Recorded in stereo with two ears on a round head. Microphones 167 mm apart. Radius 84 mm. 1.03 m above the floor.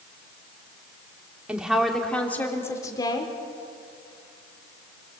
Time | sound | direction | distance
1.5 | a woman speaking | 5° right (ahead or behind) | 3 m